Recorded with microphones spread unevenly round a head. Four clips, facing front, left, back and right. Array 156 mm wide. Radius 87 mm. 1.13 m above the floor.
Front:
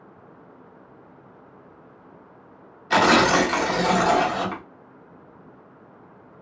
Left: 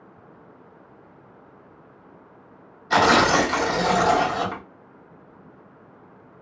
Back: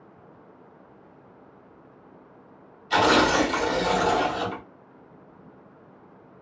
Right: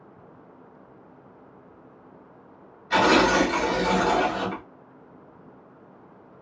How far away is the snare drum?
No snare drum in this recording.